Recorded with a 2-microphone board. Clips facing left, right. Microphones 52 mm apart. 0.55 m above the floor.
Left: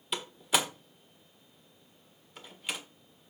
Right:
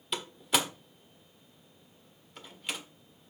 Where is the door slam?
5° left (ahead or behind), 1.3 m.